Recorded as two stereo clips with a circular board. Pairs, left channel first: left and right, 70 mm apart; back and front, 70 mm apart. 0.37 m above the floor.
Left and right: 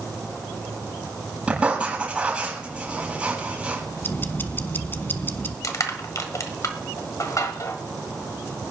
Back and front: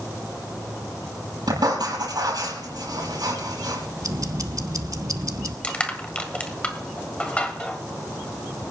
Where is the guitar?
I don't hear a guitar.